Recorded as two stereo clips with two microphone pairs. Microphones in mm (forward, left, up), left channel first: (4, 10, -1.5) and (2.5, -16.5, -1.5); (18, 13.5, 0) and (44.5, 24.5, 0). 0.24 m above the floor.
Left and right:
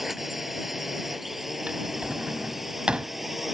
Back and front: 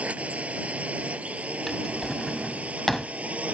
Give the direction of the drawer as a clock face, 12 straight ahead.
3 o'clock.